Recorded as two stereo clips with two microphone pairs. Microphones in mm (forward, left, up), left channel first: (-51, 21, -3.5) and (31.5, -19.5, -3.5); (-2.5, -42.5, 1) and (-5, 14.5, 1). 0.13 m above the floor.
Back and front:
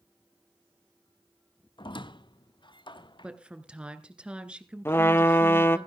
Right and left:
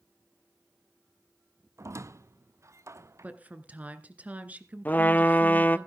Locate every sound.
1.8 s a squeak: 125° left, 0.5 m
3.2 s a woman speaking: 45° left, 1.5 m
4.8 s a trumpet: 145° right, 0.6 m